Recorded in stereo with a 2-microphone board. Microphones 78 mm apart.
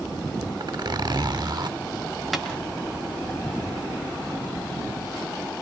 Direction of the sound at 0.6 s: 60° right (ahead or behind).